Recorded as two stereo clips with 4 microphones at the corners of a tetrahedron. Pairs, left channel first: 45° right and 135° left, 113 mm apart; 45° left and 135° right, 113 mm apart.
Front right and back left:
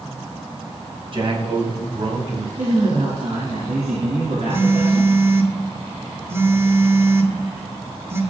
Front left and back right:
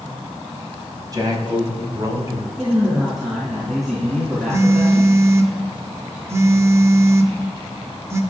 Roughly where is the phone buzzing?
Behind.